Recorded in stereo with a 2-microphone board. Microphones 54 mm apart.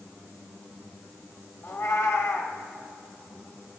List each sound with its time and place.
1.6 s a cat meowing: 60° left (ahead or behind), 1.2 m